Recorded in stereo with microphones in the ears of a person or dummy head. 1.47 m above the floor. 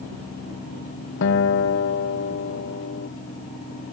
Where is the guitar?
75° left (ahead or behind).